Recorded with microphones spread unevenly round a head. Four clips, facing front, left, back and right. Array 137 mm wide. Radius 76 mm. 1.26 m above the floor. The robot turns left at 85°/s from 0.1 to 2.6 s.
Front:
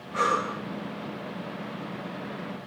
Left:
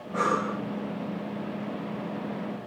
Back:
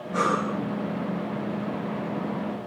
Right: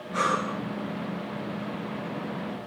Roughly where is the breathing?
Behind left.